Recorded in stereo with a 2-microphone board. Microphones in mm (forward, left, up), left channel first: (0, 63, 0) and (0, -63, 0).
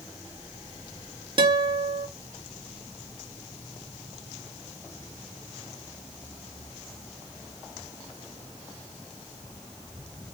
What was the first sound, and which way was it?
A guitar, 40° right (ahead or behind).